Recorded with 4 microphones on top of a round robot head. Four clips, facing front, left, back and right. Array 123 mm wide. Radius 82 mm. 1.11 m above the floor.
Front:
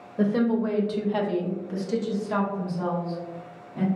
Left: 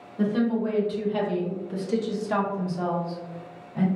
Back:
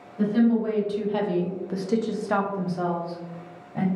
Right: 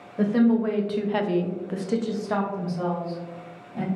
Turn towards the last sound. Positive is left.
turn(degrees=180)